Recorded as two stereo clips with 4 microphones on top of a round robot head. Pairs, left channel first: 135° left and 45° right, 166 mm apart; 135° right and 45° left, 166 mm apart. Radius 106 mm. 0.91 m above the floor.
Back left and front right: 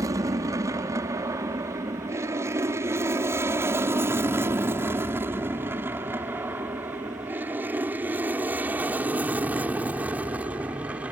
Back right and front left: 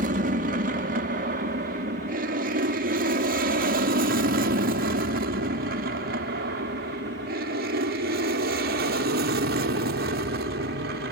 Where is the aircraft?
25° left; by 11.1 s 35° left.